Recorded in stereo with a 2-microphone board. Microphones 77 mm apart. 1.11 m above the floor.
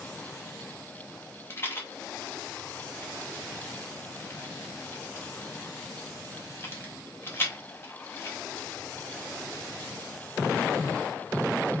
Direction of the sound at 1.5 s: 30° left (ahead or behind).